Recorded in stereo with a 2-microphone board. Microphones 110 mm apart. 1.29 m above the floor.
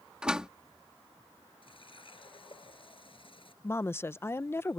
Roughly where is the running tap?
Left.